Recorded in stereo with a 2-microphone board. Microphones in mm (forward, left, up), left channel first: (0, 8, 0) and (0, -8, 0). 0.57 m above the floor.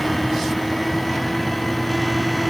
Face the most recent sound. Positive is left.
No sound to turn to.